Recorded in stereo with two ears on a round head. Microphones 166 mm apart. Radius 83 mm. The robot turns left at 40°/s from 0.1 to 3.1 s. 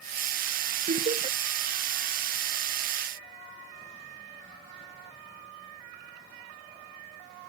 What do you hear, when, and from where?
0.9 s laughter: 40° right (ahead or behind); by 1.4 s 20° right (ahead or behind)